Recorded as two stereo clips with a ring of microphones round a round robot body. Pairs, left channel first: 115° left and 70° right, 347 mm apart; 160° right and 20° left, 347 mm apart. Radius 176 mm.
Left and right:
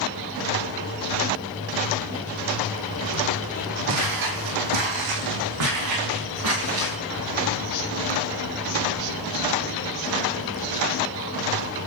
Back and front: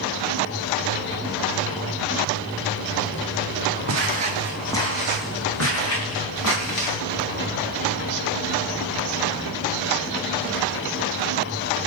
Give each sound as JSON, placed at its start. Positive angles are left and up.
{"t": 3.9, "sound": "footsteps", "azimuth_deg": -25, "distance_m": 1.1}